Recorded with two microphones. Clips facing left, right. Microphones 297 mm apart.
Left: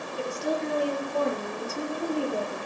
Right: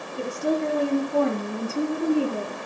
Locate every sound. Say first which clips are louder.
0.2 s a woman speaking: right 5 dB; 60° right (ahead or behind), 5 m; by 2.6 s 75° right (ahead or behind), 5 m